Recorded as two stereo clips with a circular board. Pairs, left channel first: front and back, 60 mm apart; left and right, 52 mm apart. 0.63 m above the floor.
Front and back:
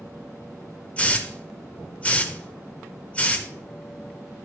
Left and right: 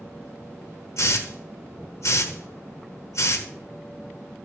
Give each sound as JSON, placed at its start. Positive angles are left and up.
{"t": 1.0, "sound": "a hiss", "azimuth_deg": 70, "distance_m": 0.9}